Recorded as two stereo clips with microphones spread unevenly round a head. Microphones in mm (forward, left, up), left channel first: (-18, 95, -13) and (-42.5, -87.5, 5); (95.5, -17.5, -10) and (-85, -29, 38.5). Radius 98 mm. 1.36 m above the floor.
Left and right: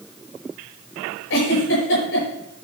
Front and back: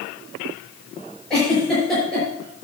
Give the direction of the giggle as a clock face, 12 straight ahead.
9 o'clock.